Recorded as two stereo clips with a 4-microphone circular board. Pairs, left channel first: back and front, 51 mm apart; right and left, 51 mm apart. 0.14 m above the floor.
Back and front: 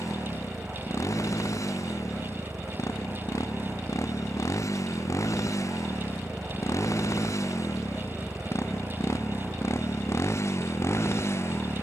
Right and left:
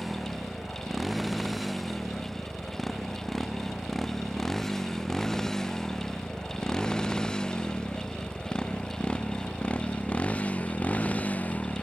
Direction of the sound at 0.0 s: 175° left.